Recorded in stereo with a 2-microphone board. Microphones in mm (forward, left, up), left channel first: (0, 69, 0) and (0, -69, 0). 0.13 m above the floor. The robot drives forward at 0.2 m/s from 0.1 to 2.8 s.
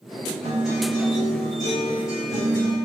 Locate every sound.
0.4 s a guitar: 30° right (ahead or behind), 1.7 m; by 2.8 s 25° right (ahead or behind), 2.0 m